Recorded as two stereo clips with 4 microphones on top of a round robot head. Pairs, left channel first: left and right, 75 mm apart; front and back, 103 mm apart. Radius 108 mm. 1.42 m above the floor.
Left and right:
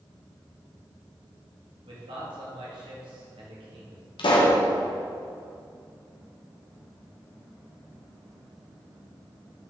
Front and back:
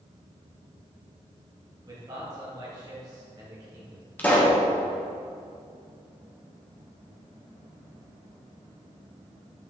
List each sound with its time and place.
1.9 s a man speaking: 115° right, 2.0 m
4.2 s a pop: 75° left, 1.4 m